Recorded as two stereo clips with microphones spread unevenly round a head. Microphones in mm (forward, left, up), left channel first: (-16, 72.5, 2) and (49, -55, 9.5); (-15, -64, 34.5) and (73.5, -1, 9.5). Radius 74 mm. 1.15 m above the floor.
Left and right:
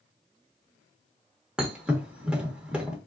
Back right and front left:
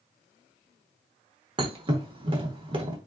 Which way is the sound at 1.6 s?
10° left.